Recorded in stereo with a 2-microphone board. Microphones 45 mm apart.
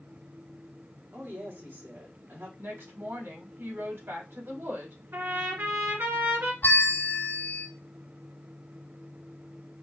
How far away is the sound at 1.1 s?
About 3 m.